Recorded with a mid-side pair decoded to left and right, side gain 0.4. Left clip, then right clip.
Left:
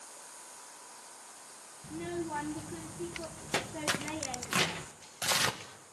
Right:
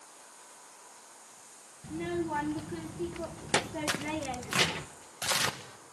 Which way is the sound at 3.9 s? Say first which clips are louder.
Left 2 dB; straight ahead.